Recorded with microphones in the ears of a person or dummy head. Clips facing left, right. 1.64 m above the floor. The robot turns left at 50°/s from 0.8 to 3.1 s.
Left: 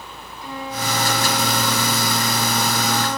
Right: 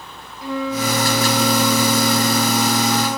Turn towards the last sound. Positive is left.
turn(degrees=-175)